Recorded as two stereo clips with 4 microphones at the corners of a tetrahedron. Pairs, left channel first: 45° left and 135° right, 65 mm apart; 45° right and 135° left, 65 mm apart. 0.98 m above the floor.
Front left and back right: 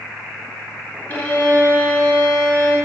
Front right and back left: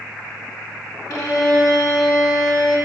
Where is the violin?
20° right, 2 m.